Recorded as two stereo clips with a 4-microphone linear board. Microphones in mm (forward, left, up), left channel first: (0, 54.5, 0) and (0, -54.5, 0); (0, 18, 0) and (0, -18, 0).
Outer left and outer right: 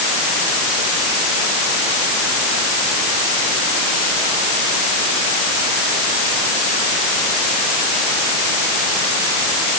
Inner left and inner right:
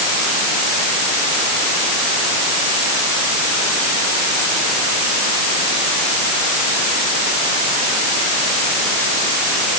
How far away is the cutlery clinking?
I don't hear cutlery clinking.